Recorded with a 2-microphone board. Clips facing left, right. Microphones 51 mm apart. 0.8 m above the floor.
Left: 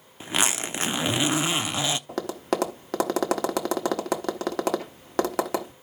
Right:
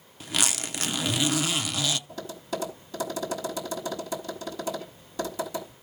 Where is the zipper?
25° left (ahead or behind), 0.5 m.